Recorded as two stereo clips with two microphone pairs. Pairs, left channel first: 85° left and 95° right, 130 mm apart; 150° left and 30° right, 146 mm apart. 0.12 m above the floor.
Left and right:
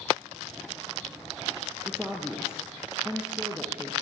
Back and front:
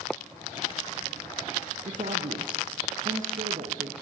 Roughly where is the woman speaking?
Ahead.